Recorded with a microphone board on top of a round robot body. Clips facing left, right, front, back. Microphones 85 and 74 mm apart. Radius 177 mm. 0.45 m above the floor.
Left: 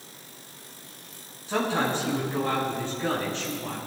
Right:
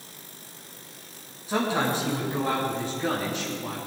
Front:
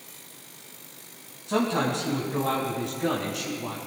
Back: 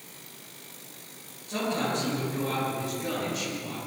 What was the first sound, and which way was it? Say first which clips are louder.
A man speaking: right 1 dB, front 4 dB; straight ahead.